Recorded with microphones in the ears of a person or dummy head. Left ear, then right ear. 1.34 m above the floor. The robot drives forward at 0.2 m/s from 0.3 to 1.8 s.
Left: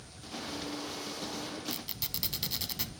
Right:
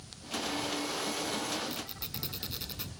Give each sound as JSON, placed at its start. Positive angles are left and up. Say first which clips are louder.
{"t": 1.7, "sound": "a squeak", "louder": "left 1 dB", "side_deg": 25, "distance_m": 1.0}